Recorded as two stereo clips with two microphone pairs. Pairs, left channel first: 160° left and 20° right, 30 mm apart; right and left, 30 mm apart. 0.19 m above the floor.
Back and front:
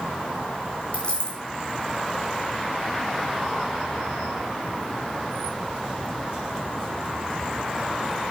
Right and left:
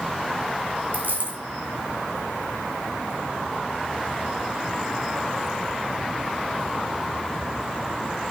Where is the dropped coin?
110° left, 5 m.